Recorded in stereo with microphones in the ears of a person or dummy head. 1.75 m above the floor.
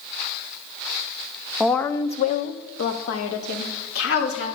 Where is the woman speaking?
5° left (ahead or behind), 0.6 m; by 4.5 s 75° left (ahead or behind), 1.9 m.